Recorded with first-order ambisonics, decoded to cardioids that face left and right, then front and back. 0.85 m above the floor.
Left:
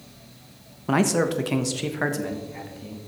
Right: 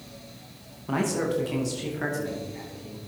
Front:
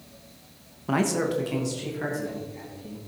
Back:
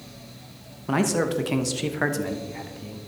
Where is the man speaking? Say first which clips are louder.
Left 5 dB, back 1 dB; 90° left, 0.9 m; by 3.0 s 155° left, 1.7 m.